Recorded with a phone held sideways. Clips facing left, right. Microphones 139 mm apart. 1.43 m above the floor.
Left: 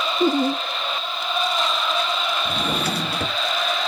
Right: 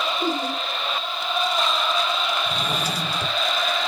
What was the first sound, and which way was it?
Laughter, 55° left (ahead or behind).